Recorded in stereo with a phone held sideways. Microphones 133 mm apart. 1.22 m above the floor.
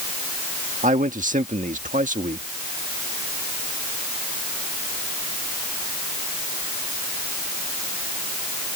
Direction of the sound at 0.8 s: 80° right.